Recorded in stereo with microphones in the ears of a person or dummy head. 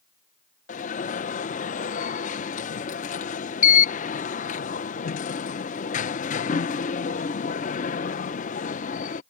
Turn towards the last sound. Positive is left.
turn(degrees=40)  # may be behind; listen again after turning